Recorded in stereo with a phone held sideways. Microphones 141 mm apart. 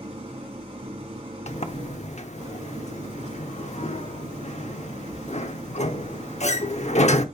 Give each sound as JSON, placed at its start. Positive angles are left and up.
{"t": 0.0, "sound": "an engine running", "side_deg": -45, "distance_m": 3.0}
{"t": 1.5, "sound": "a sliding door", "side_deg": 55, "distance_m": 0.8}